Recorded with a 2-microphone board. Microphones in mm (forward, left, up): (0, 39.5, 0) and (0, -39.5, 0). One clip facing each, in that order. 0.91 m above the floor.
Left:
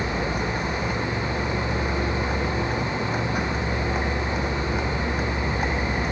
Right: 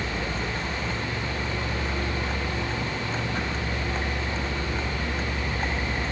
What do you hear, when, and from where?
0.0 s a vehicle: 15° left (ahead or behind)